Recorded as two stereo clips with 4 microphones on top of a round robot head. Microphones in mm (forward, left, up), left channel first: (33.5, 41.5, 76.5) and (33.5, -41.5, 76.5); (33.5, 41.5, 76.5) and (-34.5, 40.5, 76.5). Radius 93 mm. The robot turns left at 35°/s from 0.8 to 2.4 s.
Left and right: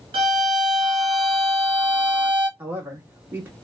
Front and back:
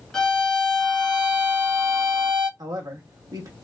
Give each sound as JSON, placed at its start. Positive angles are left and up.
{"t": 0.1, "sound": "a violin", "azimuth_deg": -85, "distance_m": 0.8}
{"t": 2.6, "sound": "a man speaking", "azimuth_deg": -155, "distance_m": 1.4}